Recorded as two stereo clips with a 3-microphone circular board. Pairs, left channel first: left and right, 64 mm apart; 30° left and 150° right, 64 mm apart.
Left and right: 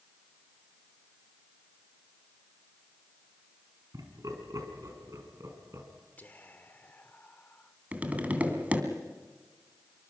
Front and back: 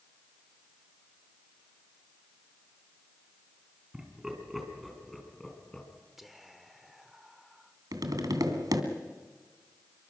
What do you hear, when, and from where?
3.9 s laughter: 70° right, 5 m; by 5.9 s 50° right, 5 m
6.2 s whispering: 125° left, 1.0 m
7.9 s tapping: 155° right, 2.5 m